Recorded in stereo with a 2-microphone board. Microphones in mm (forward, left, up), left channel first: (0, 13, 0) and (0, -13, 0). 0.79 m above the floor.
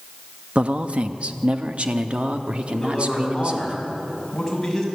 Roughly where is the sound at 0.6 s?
Right.